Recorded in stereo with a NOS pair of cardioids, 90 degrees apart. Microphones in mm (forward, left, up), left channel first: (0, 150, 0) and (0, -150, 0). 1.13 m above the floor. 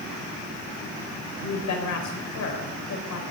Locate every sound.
1.4 s a woman speaking: 65° left, 5 m